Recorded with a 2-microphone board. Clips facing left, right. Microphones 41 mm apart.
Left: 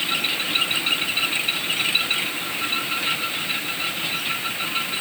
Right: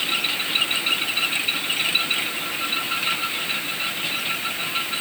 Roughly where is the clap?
No clap in this recording.